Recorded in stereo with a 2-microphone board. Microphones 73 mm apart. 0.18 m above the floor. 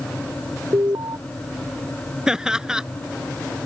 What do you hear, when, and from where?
0.7 s an alarm: 55° right (ahead or behind)
2.3 s laughter: 10° right (ahead or behind)